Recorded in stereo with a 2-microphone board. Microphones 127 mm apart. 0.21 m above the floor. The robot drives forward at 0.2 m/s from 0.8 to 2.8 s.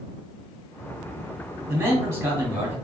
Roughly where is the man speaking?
Right.